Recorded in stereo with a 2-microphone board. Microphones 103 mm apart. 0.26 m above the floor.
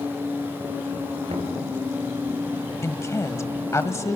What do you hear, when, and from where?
1.3 s knocking: 75° right (ahead or behind), 3 m
2.8 s a woman speaking: 30° left (ahead or behind), 1.2 m